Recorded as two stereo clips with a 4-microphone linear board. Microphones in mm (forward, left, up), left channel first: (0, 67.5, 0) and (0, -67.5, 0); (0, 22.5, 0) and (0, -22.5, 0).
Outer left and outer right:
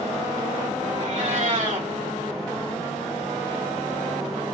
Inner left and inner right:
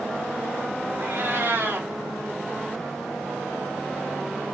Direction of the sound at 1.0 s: 65° right (ahead or behind).